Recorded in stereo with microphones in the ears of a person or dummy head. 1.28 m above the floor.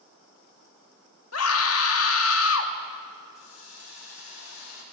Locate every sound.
1.3 s a scream: 85° left, 2.5 m
3.4 s a hiss: 85° left, 6.5 m